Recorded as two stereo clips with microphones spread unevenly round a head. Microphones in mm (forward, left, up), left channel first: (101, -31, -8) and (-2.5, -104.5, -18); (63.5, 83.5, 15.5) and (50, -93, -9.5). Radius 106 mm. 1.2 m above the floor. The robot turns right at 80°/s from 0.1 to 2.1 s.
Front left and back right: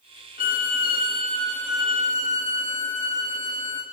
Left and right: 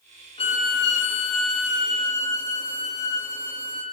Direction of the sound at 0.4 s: 25° left.